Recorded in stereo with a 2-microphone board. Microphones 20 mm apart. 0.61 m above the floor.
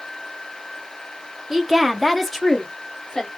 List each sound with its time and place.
1.5 s a woman speaking: 20° right (ahead or behind), 0.6 m; by 3.3 s 20° left (ahead or behind), 1.2 m